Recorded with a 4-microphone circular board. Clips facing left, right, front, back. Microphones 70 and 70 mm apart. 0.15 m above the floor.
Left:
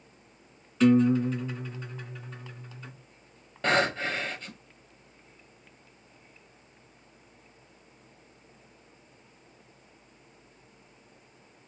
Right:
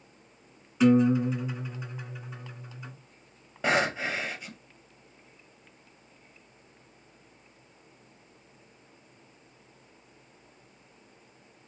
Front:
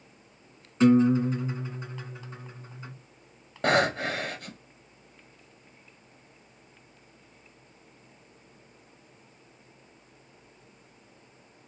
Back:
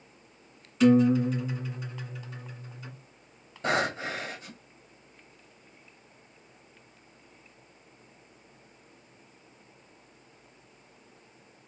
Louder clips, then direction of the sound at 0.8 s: Even, even; 25° right.